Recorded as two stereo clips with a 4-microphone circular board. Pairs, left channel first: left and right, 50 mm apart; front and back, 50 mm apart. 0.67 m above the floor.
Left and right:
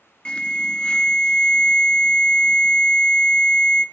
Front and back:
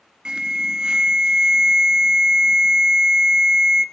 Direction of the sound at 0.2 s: 130° left.